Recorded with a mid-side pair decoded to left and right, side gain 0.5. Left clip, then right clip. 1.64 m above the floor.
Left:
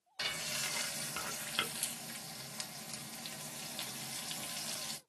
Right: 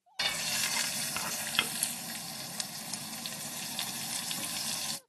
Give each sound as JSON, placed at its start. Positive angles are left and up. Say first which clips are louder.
{"t": 0.2, "sound": "frying", "louder": "right 6 dB", "azimuth_deg": -45, "distance_m": 0.7}